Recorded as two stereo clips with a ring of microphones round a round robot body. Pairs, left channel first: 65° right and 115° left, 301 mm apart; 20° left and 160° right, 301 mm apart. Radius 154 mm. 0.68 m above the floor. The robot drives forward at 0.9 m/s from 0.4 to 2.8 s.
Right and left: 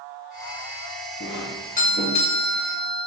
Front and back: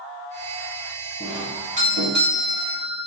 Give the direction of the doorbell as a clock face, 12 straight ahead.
3 o'clock.